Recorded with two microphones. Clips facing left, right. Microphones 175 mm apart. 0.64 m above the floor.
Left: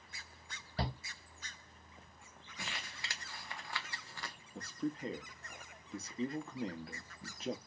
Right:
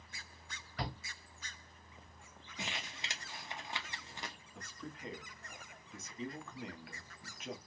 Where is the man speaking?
35° left (ahead or behind), 0.8 m.